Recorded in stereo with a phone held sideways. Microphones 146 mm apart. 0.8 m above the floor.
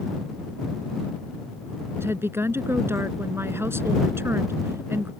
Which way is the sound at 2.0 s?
15° right (ahead or behind).